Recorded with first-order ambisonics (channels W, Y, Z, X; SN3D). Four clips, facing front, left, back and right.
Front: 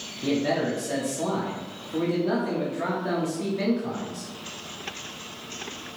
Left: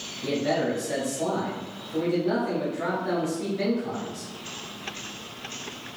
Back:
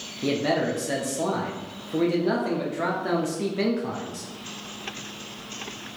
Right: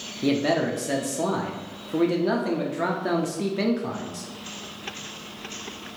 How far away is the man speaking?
About 0.5 m.